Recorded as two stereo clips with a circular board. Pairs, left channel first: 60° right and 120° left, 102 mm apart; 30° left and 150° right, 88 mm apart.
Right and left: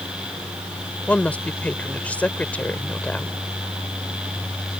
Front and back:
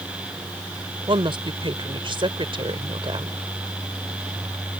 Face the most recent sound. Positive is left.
turn(degrees=-135)